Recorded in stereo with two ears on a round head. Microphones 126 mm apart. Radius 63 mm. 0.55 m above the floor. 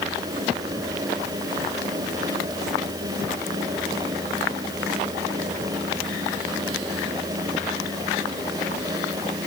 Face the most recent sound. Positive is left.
No sound to turn to.